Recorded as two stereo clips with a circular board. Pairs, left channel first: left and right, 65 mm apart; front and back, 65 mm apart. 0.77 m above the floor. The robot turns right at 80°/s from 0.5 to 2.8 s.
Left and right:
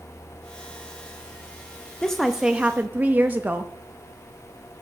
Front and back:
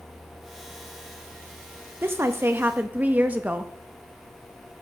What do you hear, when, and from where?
2.0 s a woman speaking: 165° left, 0.5 m; by 3.7 s 135° right, 0.5 m